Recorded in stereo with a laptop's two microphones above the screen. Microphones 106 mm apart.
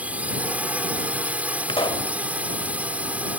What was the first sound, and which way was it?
A drone, 10° right (ahead or behind).